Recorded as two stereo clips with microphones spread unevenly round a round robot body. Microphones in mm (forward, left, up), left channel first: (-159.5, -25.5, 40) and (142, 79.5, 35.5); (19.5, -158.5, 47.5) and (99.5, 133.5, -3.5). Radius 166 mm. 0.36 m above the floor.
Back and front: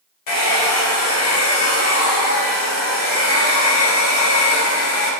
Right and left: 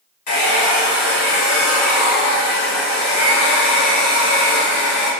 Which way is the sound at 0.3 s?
145° right.